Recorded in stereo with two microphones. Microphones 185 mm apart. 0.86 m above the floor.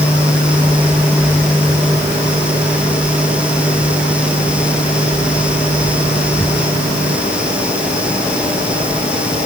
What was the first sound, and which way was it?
Only background noise.